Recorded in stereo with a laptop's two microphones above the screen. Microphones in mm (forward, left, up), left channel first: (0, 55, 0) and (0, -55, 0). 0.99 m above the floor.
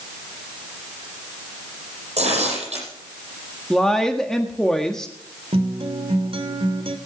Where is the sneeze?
I don't hear a sneeze.